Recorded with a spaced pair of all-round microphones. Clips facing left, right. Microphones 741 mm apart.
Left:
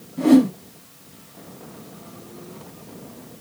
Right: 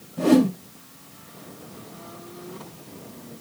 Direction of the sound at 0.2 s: 25° right (ahead or behind).